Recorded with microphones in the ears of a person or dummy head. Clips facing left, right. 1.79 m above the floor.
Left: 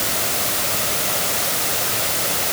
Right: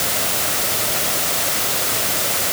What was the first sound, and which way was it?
Only background noise.